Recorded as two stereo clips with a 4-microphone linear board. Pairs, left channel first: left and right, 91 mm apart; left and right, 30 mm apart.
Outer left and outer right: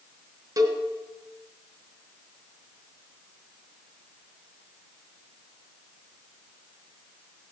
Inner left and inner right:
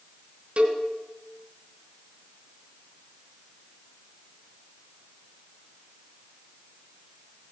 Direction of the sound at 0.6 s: 40° right (ahead or behind).